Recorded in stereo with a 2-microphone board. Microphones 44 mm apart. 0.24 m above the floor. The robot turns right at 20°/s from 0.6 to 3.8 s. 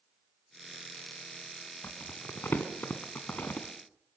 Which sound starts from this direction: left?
Crumpling, at 1.8 s.